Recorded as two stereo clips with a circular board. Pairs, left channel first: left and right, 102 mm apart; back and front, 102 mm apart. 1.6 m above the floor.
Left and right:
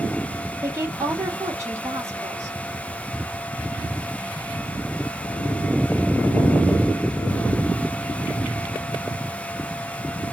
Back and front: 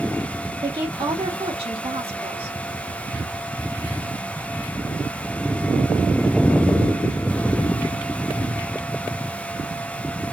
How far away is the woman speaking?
About 1.8 m.